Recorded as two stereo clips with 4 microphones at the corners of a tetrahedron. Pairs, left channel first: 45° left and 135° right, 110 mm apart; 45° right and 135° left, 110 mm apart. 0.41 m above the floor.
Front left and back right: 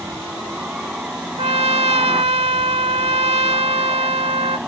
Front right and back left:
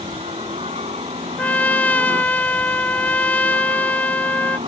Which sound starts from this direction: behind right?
A trumpet, at 1.4 s.